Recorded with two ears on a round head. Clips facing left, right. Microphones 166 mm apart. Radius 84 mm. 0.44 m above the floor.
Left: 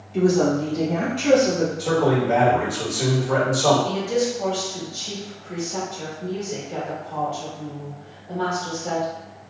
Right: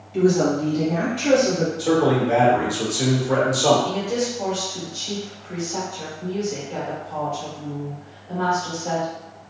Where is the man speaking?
10° right (ahead or behind), 1.2 m.